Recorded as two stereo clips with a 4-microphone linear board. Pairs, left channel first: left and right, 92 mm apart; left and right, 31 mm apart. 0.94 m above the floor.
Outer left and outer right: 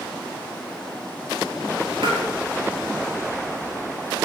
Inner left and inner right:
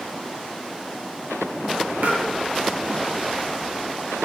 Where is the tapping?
85° right, 6.5 m.